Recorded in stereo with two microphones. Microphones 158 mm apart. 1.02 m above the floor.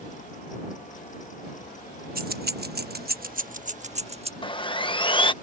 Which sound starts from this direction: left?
Sawing, at 4.4 s.